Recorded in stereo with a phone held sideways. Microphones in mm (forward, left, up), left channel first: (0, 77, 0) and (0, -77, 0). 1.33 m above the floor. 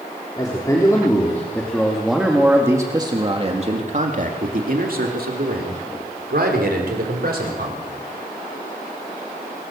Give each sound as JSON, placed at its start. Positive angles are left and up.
{"t": 0.4, "sound": "a man speaking", "side_deg": 25, "distance_m": 3.5}